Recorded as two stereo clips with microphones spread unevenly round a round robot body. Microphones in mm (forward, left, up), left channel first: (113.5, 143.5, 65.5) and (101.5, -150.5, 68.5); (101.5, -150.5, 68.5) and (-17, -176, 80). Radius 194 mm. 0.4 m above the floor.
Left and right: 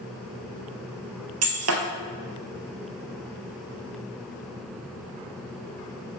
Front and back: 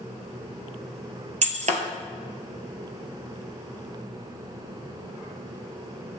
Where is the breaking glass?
145° right, 1.2 m.